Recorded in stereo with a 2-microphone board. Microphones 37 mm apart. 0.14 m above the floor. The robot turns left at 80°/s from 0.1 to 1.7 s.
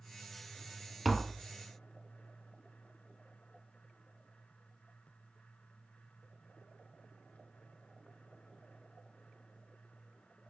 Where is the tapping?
Centre (ahead or behind), 0.6 m; by 1.5 s 10° right (ahead or behind), 0.6 m.